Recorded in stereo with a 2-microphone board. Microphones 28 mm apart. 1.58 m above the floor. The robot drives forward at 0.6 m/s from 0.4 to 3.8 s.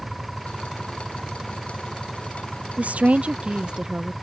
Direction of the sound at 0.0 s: Centre (ahead or behind).